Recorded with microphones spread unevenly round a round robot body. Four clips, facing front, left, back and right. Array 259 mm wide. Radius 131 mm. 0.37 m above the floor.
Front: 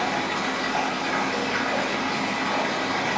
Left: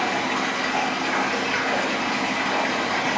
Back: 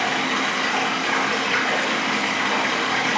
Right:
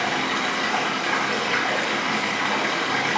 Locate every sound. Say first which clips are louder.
0.0 s running water: left 1 dB, back 2 dB; 110° right, 1.2 m